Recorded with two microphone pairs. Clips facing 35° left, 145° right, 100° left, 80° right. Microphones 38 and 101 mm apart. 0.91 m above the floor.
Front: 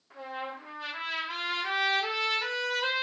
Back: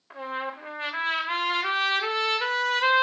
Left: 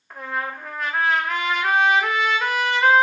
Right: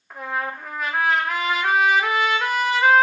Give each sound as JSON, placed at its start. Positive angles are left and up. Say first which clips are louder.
{"t": 0.1, "sound": "a trumpet", "louder": "back 5 dB, right 1 dB", "azimuth_deg": -170, "distance_m": 0.5}